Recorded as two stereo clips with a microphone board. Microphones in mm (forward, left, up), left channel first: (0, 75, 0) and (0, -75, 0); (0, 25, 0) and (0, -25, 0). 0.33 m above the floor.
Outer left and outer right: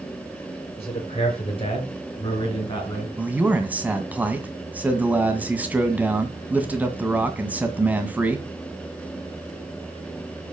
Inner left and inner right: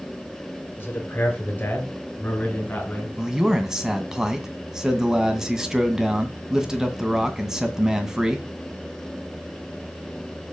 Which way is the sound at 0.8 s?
40° left (ahead or behind).